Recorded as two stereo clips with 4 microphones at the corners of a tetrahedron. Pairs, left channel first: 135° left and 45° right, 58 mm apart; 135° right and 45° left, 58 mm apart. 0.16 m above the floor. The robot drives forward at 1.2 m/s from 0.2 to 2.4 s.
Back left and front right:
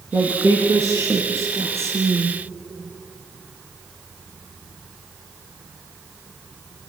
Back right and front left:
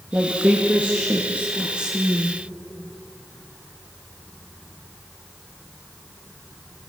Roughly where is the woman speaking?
Ahead.